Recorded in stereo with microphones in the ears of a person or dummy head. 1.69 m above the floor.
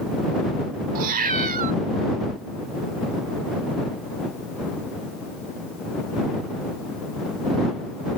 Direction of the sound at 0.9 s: 45° right (ahead or behind).